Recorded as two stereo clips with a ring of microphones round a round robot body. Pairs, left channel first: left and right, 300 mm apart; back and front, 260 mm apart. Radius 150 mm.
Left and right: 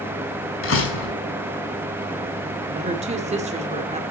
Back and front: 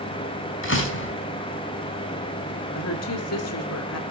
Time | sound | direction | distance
0.6 | a door slam | 140° left | 4.5 m
2.8 | a woman speaking | 155° right | 2 m